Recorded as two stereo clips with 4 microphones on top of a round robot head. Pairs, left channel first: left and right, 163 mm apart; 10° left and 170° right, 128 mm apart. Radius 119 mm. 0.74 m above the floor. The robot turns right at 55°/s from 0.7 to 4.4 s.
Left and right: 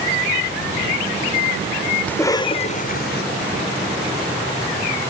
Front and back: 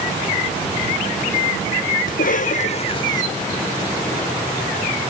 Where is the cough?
10° left; by 3.2 s 70° left.